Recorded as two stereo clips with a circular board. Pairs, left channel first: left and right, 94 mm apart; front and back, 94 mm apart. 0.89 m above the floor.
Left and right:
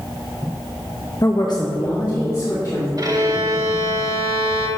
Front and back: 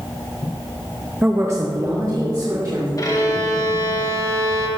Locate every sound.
1.2 s a woman speaking: 115° left, 0.7 m; by 2.9 s 135° left, 2.5 m
3.0 s a violin: 45° right, 1.7 m